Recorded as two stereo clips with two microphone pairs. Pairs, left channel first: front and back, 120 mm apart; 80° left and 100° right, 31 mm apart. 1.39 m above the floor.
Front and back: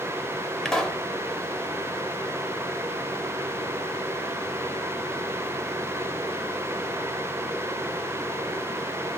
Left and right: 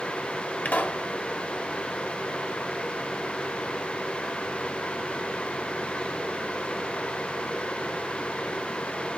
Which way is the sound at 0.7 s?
85° left.